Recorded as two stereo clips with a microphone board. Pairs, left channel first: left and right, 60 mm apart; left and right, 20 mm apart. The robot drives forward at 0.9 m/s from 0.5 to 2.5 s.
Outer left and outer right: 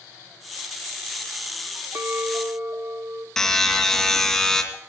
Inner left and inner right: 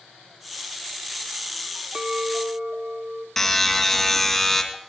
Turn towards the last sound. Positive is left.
turn(degrees=5)  # may be behind; listen again after turning